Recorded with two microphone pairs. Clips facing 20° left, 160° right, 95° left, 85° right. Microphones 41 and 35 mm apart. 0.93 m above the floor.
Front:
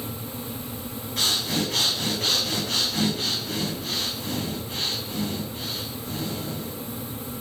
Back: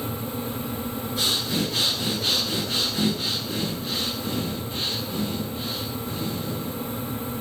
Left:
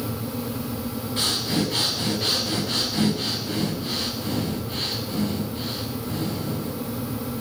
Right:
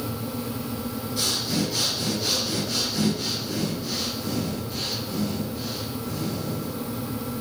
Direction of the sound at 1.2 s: 45° left.